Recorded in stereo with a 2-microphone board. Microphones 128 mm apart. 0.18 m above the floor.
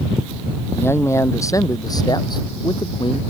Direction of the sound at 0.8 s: 20° left (ahead or behind).